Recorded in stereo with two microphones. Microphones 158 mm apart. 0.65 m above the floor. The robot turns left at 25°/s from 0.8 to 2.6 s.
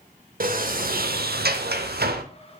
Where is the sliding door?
65° right, 0.8 m; by 2.2 s 100° right, 0.8 m.